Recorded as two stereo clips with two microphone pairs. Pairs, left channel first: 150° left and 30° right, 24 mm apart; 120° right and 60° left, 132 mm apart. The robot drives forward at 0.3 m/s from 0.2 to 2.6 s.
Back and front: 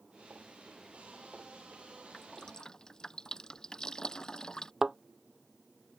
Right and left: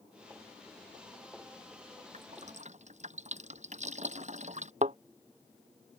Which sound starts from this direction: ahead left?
A thud, at 4.8 s.